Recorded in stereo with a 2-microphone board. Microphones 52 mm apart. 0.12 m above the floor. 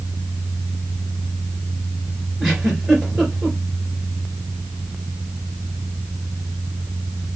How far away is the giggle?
About 1.8 m.